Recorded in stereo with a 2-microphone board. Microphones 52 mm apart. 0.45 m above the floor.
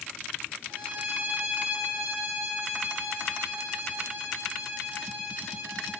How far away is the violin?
About 9.5 m.